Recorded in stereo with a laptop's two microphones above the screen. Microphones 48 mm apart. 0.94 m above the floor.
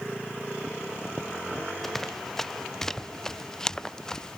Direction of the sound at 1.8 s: 5° left (ahead or behind).